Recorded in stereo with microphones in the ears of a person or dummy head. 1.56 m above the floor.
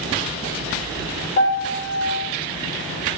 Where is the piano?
25° left (ahead or behind), 3.5 m.